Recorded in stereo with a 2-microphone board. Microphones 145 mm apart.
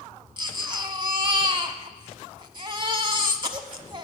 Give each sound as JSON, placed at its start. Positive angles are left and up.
{"t": 0.4, "sound": "a baby crying", "side_deg": -35, "distance_m": 0.9}